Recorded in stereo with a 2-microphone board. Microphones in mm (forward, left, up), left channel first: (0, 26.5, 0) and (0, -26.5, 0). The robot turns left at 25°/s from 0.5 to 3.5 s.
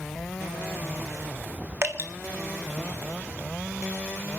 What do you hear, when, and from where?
1.8 s dripping: 55° right (ahead or behind), 1.4 m